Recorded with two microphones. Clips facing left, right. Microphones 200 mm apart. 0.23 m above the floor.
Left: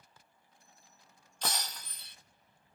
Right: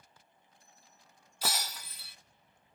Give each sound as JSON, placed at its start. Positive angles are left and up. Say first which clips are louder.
{"t": 1.4, "sound": "breaking glass", "louder": "right 1 dB", "side_deg": -5, "distance_m": 0.7}